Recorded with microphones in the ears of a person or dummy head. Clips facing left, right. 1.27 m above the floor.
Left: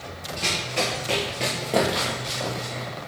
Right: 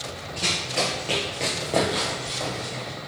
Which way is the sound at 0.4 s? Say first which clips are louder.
Even; 10° right (ahead or behind).